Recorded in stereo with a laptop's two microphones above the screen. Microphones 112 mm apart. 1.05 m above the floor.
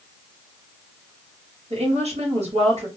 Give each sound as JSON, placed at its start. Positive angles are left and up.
{"t": 1.7, "sound": "a woman speaking", "side_deg": -70, "distance_m": 1.6}